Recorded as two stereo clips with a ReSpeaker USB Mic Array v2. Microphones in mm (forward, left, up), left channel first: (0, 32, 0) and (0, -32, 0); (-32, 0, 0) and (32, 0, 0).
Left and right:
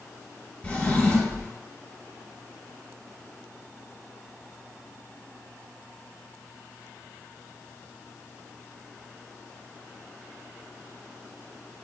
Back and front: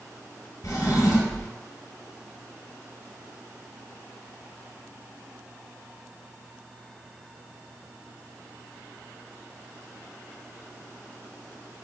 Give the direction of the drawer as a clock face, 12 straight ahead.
7 o'clock.